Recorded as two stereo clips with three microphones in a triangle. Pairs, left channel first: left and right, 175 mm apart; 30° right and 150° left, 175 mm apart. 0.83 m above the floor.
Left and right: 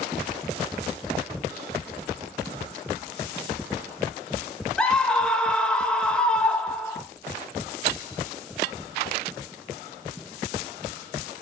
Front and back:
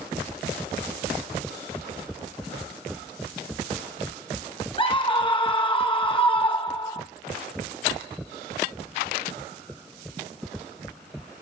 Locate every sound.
4.8 s a scream: 10° left, 1.1 m